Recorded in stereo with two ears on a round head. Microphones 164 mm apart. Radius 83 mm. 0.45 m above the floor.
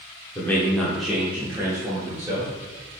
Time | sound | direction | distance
0.3 | a man speaking | 10° left (ahead or behind) | 0.9 m